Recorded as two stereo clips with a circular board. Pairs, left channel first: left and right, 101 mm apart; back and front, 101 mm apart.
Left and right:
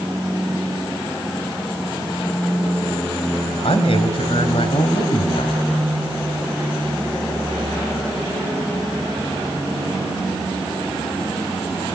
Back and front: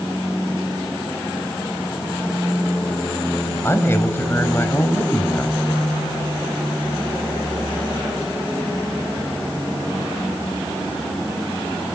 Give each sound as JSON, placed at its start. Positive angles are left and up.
{"t": 3.6, "sound": "a man speaking", "azimuth_deg": 115, "distance_m": 4.0}